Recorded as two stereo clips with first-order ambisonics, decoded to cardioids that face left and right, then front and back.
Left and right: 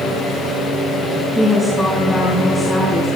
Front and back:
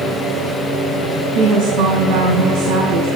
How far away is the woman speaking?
About 2.5 m.